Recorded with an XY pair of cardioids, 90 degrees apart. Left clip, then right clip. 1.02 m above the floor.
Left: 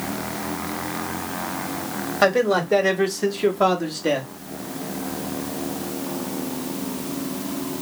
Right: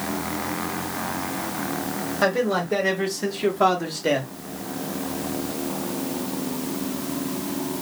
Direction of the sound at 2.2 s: 45° left.